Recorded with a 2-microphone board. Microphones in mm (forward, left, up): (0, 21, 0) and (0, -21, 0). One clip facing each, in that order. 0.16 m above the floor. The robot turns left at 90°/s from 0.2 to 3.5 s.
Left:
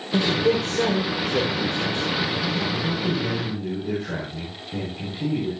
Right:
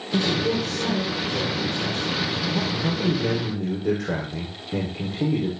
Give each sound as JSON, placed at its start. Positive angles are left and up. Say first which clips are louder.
{"t": 0.1, "sound": "a man speaking", "louder": "left 2 dB", "side_deg": 0, "distance_m": 8.0}
{"t": 2.7, "sound": "a man speaking", "louder": "right 1 dB", "azimuth_deg": -10, "distance_m": 8.0}